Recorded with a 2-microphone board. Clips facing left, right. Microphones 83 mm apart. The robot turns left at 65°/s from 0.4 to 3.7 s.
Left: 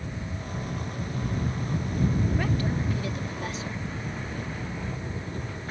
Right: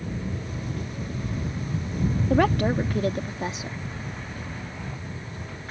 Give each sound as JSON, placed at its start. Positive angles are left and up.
{"t": 0.0, "sound": "an engine running", "azimuth_deg": -95}
{"t": 2.3, "sound": "a woman speaking", "azimuth_deg": -80}